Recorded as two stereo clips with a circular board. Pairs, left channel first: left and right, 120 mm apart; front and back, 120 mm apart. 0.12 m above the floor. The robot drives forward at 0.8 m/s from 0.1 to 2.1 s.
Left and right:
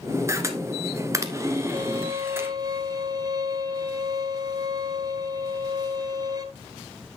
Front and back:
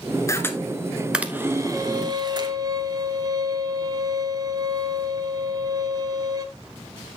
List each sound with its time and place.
0.3 s a camera shutter: 45° right, 1.2 m; by 2.5 s 150° right, 1.4 m
1.7 s a violin: 110° right, 0.7 m; by 6.5 s 135° right, 0.8 m